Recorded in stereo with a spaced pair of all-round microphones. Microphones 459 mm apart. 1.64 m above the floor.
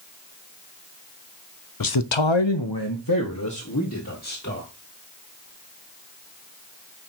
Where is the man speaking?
45° left (ahead or behind), 0.6 m; by 4.7 s 30° left (ahead or behind), 2.5 m.